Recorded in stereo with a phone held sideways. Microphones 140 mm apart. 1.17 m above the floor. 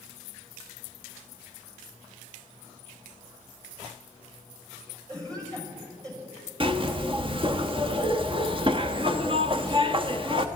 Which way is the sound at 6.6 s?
35° right (ahead or behind).